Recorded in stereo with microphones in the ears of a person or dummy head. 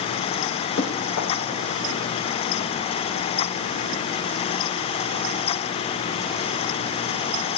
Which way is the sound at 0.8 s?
70° left (ahead or behind).